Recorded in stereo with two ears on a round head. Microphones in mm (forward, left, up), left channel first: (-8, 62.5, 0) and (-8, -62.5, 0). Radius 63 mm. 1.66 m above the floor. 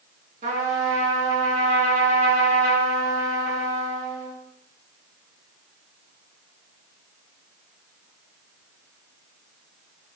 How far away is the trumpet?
About 2 m.